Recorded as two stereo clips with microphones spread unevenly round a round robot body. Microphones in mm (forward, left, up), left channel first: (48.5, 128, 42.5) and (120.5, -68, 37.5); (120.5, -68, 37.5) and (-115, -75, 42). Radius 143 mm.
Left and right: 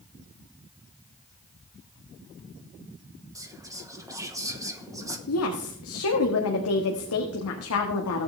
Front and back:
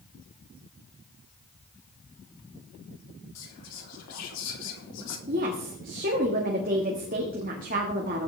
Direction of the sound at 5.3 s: 120° left.